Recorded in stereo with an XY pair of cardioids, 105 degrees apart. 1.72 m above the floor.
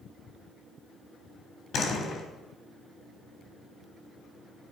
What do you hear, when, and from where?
1.7 s a door slam: 60° left, 3.5 m